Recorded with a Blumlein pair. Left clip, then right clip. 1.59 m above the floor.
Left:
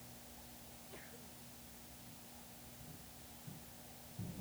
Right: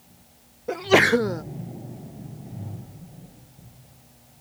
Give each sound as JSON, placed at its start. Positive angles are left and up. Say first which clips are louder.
{"t": 0.7, "sound": "a sneeze", "louder": "right 42 dB", "azimuth_deg": -45}